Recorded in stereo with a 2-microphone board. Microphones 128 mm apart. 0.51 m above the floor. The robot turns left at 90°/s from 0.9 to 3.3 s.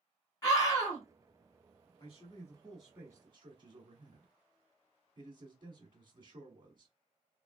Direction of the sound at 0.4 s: 25° left (ahead or behind).